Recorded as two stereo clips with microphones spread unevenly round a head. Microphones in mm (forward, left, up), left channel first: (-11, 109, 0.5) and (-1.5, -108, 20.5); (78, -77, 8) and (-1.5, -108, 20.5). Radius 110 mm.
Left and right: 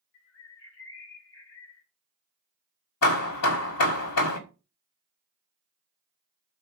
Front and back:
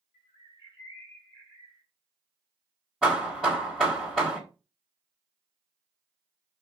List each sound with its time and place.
0.1 s a bird: 75° left, 1.3 m
3.0 s hammering: 110° left, 1.8 m